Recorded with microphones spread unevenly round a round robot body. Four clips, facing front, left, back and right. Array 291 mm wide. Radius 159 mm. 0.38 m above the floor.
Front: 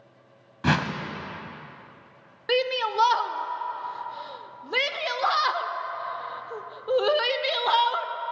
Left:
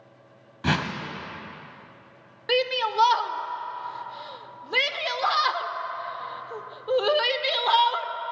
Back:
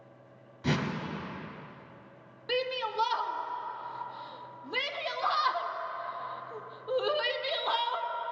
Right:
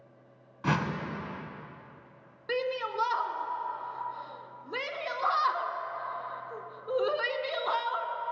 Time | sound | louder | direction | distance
0.6 | a whoosh | left 3 dB, front 6 dB | 25° left | 1.4 m
2.5 | a shout | left 6 dB, front 7 dB | 55° left | 0.9 m